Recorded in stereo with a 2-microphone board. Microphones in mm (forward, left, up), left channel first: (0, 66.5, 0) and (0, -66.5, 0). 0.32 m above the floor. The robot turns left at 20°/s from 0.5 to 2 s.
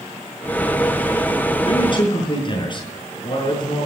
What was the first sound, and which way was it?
A man speaking, 45° left (ahead or behind).